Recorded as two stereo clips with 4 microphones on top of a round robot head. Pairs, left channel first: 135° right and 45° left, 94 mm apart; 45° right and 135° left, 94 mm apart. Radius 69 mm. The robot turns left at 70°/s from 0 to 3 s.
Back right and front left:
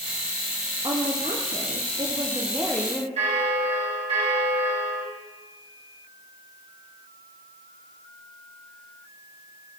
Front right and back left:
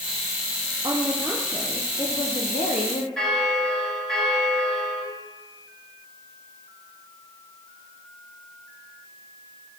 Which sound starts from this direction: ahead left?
A bell, at 3.2 s.